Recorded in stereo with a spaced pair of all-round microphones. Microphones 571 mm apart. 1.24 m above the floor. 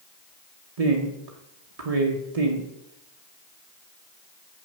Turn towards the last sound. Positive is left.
turn(degrees=-80)